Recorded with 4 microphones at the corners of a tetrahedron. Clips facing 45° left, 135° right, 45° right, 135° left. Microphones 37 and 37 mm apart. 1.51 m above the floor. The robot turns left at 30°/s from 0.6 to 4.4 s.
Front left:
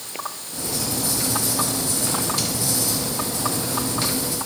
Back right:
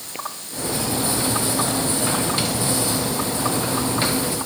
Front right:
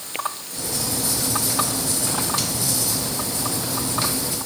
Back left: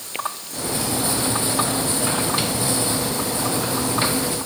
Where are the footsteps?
No footsteps in this recording.